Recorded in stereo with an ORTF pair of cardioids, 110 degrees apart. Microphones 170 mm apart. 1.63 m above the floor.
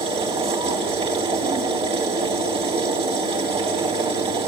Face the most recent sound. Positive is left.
turn(degrees=-35)